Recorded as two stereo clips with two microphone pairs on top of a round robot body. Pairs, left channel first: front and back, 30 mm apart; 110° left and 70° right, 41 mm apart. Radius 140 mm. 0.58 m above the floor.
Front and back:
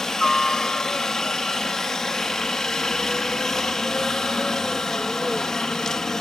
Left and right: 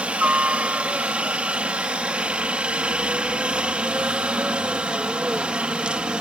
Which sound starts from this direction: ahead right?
A helicopter, at 0.0 s.